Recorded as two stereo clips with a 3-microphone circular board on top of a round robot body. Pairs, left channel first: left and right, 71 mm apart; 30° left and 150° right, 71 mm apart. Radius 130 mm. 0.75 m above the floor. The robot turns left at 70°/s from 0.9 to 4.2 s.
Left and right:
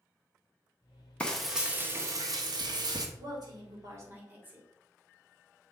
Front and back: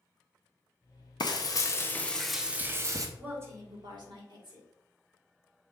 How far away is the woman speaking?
About 2.5 m.